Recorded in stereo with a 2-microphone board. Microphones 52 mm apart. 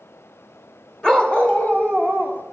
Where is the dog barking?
15° left (ahead or behind), 1.9 m; by 2.4 s 40° left (ahead or behind), 3 m.